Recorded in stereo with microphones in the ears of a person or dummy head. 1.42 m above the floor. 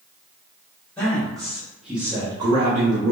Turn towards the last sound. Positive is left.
turn(degrees=-55)  # may be behind; listen again after turning